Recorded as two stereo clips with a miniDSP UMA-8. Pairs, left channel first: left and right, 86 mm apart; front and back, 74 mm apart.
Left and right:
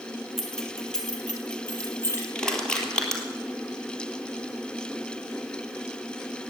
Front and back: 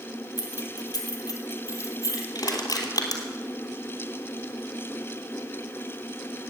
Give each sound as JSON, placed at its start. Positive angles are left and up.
{"t": 0.4, "sound": "keys jangling", "azimuth_deg": 0, "distance_m": 2.5}
{"t": 2.4, "sound": "crushing", "azimuth_deg": 10, "distance_m": 2.5}